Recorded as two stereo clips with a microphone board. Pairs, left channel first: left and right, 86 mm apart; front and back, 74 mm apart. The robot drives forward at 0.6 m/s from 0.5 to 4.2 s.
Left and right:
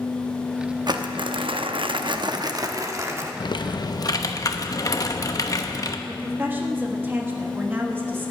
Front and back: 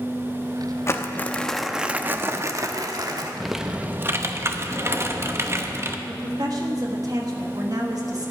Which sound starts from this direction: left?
Typing on a keyboard, at 3.4 s.